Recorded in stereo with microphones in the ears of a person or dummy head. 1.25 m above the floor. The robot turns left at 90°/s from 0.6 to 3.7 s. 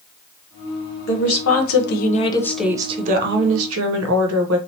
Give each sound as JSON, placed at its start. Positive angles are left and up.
{"t": 1.1, "sound": "a woman speaking", "azimuth_deg": 135, "distance_m": 0.8}